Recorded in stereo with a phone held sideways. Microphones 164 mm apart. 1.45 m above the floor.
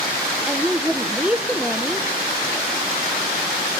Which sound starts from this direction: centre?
A woman speaking, at 0.5 s.